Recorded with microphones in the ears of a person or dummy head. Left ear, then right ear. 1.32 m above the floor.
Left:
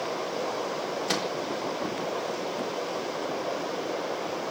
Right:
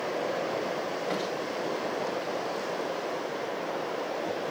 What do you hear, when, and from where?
1.1 s a microwave: 85° left, 3.5 m